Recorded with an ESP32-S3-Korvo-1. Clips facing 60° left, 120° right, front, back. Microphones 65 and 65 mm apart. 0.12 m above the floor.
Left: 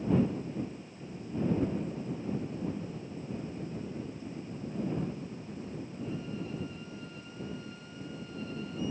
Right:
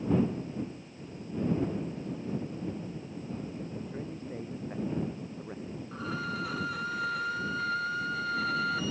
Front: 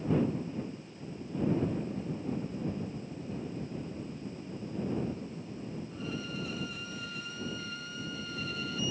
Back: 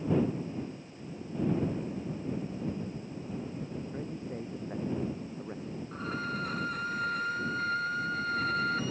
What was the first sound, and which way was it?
A man speaking, 165° right.